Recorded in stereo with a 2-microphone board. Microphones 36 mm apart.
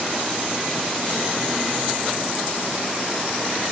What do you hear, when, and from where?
Only background noise.